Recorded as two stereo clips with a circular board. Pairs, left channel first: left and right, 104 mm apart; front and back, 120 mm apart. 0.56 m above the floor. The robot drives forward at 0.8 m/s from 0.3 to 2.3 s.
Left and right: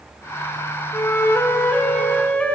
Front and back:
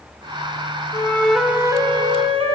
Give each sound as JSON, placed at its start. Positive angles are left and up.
{"t": 0.9, "sound": "a flute", "azimuth_deg": 35, "distance_m": 0.6}